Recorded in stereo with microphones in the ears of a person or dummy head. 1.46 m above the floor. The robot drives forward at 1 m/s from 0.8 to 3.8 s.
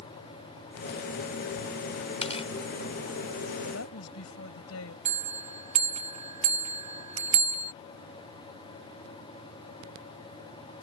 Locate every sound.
2.2 s tearing paper: 40° left (ahead or behind); by 2.5 s 35° left (ahead or behind)
3.7 s a woman speaking: 90° left
5.0 s a bell: 35° right (ahead or behind)